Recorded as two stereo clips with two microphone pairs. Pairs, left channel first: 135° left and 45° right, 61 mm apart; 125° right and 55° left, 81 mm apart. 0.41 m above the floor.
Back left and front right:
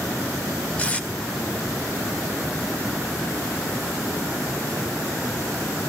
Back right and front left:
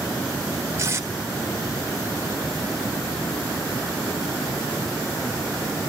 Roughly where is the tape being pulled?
Left.